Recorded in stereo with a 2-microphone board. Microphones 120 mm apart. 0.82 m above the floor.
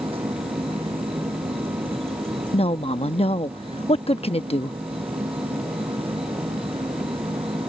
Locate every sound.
0.0 s an insect: 50° right (ahead or behind)
2.5 s a woman speaking: 55° left (ahead or behind)